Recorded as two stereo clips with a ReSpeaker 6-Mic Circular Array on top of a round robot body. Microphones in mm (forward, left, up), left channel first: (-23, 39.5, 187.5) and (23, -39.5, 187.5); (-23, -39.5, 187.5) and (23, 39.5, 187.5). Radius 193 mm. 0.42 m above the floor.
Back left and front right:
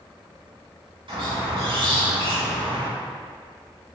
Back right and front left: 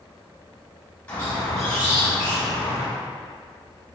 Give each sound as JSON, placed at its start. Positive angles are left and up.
{"t": 1.1, "sound": "a squeak", "azimuth_deg": -50, "distance_m": 1.5}